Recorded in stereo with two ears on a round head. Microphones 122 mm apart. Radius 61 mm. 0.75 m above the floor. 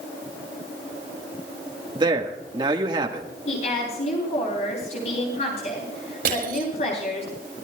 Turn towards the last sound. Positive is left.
turn(degrees=-75)  # may be behind; listen again after turning